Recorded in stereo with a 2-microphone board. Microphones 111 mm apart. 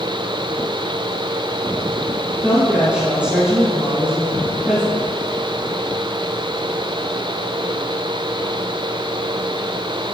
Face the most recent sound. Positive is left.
turn(degrees=-10)  # may be behind; listen again after turning